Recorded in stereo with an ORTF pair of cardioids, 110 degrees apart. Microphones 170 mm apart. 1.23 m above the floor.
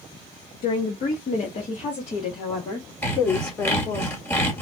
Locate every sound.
0.6 s a woman speaking: 55° left, 1.4 m; by 4.0 s 25° left, 3 m
3.0 s sawing: 15° left, 2.5 m